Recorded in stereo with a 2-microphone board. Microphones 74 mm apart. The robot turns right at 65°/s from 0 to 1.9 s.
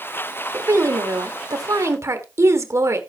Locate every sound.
0.5 s a woman speaking: 140° right, 1.8 m; by 3.0 s 50° right, 1.8 m